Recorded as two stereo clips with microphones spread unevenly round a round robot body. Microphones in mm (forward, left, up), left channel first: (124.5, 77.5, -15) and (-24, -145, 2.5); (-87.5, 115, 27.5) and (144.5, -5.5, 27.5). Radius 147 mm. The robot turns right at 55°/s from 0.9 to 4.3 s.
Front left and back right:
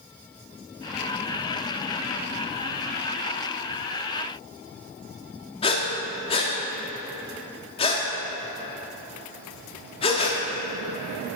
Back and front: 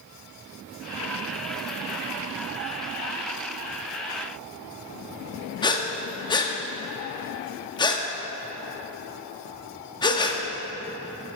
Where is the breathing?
95° left, 0.9 m.